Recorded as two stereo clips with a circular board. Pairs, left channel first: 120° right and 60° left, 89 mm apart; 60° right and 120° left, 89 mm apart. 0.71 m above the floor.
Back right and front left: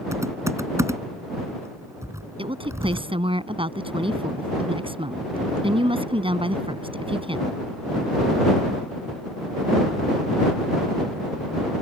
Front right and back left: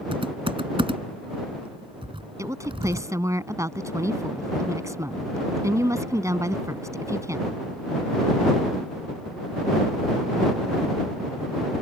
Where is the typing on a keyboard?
115° left.